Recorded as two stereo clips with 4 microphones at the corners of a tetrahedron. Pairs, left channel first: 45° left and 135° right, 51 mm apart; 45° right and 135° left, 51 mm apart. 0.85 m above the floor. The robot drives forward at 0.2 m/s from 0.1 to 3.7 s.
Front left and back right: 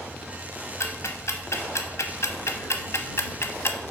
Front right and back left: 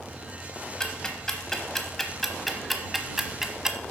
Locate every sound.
0.8 s ticking: 30° left, 1.0 m; by 3.8 s 60° left, 0.7 m